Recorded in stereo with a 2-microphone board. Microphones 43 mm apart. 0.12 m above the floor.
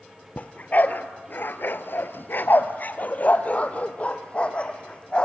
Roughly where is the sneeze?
No sneeze in this recording.